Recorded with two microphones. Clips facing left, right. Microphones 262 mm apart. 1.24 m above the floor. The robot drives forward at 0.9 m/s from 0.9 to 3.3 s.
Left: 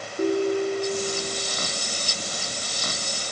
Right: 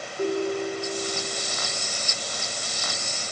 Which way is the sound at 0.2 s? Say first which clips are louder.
Left 3 dB; 45° left (ahead or behind).